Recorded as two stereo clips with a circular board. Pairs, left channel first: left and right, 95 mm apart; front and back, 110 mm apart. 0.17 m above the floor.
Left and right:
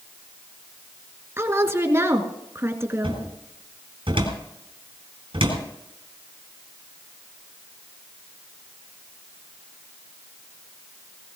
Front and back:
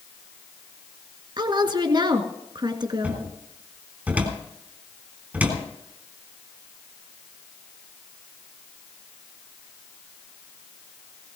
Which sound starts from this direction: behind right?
A woman speaking, at 1.4 s.